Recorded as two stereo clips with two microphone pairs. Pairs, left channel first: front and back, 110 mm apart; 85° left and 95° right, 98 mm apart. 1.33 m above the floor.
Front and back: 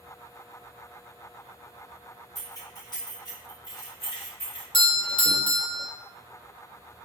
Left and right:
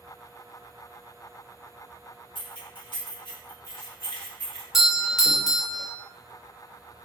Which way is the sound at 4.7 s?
10° right.